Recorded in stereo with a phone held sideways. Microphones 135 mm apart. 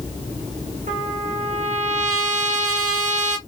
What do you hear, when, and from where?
0.9 s a trumpet: 65° right (ahead or behind), 1.1 m